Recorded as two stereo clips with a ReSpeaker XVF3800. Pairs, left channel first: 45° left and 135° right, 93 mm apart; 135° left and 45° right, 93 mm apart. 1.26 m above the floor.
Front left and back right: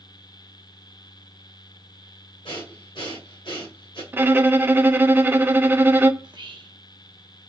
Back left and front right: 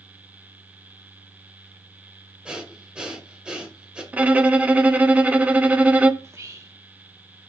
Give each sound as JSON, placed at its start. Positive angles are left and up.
{"t": 2.5, "sound": "breathing", "azimuth_deg": 35, "distance_m": 2.0}
{"t": 4.1, "sound": "a violin", "azimuth_deg": -100, "distance_m": 0.6}
{"t": 6.2, "sound": "whispering", "azimuth_deg": -100, "distance_m": 1.3}